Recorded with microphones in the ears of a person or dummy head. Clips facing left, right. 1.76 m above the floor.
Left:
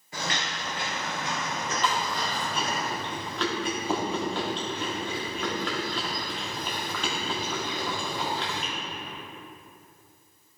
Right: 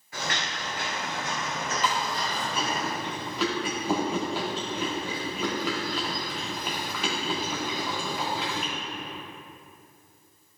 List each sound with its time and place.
0.1 s footsteps: 25° left (ahead or behind), 2 m; by 2.8 s 15° left (ahead or behind), 4 m
1.8 s chewing: 5° right (ahead or behind), 1.9 m